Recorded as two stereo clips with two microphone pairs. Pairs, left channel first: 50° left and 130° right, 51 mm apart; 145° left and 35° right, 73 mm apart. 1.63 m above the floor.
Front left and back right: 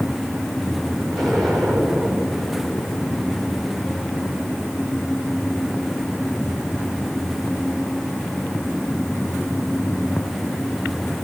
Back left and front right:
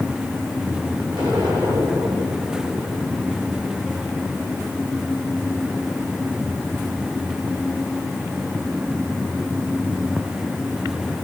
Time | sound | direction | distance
1.1 | an explosion | 45° right | 6.5 m